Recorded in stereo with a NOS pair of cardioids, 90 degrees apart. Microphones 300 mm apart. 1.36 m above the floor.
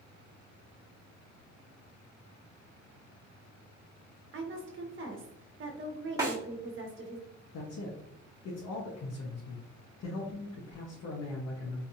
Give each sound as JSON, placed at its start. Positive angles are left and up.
{"t": 4.3, "sound": "a woman speaking", "azimuth_deg": -40, "distance_m": 1.3}
{"t": 6.2, "sound": "a snare drum", "azimuth_deg": -10, "distance_m": 2.0}
{"t": 7.5, "sound": "a man speaking", "azimuth_deg": 55, "distance_m": 1.2}